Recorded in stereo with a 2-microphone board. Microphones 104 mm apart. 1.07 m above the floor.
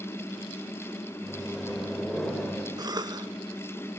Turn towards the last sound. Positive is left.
turn(degrees=-40)  # may be behind; listen again after turning